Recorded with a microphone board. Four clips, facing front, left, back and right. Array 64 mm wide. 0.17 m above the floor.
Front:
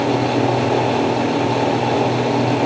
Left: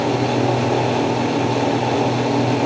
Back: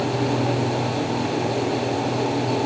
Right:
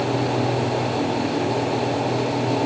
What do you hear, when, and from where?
Only background noise.